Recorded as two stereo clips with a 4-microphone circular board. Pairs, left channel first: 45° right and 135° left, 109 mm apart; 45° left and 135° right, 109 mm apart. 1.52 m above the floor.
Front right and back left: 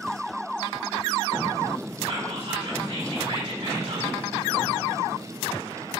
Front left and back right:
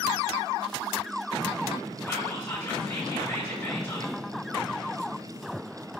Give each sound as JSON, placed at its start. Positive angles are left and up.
{"t": 2.1, "sound": "whispering", "azimuth_deg": 115, "distance_m": 3.0}